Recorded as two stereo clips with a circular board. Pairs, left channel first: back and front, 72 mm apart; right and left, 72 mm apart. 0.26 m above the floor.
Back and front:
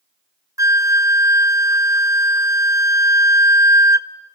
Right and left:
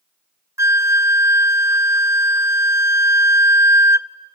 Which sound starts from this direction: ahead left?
A flute, at 0.6 s.